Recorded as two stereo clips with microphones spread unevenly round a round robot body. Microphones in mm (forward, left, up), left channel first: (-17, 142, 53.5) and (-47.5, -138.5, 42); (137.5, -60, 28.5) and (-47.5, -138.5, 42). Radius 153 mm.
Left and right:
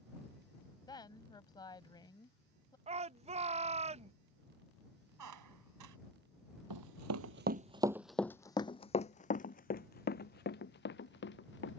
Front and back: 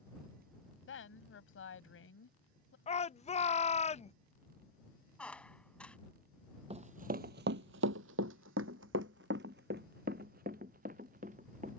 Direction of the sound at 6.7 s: 105° right.